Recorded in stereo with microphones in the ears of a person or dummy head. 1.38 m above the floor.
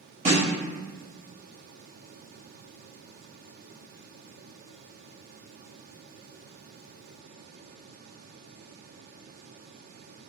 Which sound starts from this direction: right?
A snare drum, at 0.2 s.